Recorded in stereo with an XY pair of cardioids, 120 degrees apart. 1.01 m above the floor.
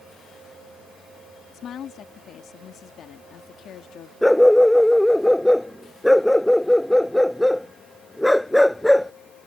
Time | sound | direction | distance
1.5 | a woman speaking | 55° left | ?
4.2 | a dog barking | 5° left | ?